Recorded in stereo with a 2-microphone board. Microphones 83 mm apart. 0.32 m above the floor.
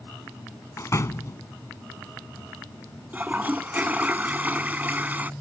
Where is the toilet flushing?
20° right (ahead or behind).